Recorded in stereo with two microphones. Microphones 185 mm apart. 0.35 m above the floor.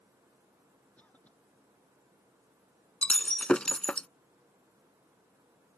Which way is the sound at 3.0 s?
5° left (ahead or behind).